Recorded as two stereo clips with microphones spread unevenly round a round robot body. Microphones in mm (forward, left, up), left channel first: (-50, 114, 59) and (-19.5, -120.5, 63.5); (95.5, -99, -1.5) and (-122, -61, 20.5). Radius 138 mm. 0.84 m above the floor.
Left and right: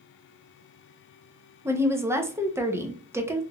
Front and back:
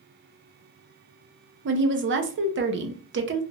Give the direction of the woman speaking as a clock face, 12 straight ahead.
5 o'clock.